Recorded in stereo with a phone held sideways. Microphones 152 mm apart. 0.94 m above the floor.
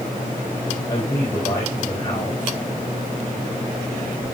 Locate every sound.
0.9 s a man speaking: 20° left (ahead or behind), 4 m